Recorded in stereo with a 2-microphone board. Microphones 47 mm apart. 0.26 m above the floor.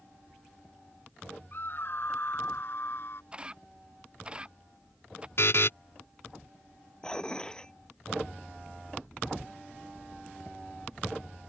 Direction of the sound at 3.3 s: 20° right (ahead or behind).